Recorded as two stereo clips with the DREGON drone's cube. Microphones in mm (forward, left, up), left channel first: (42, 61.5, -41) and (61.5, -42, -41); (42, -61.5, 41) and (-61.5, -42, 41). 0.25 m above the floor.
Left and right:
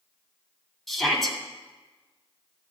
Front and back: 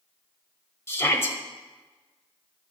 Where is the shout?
15° left, 1.2 m.